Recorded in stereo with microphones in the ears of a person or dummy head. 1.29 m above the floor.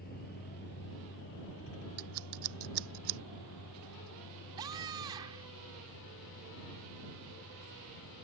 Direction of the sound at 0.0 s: 45° left (ahead or behind).